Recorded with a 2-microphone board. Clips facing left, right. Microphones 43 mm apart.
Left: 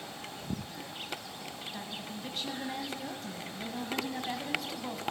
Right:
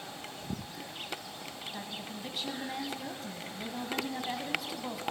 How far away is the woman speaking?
About 1.0 m.